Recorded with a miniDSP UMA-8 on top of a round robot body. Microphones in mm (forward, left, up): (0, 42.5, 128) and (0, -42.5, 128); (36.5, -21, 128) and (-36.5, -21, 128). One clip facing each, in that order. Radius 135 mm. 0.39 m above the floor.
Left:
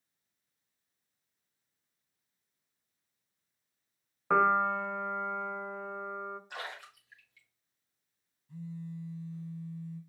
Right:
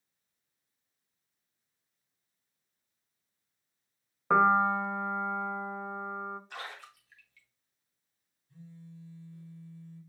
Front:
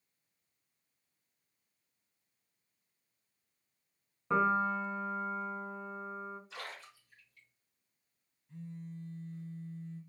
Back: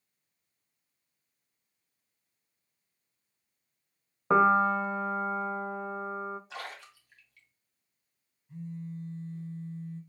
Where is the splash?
165° left, 2.5 m.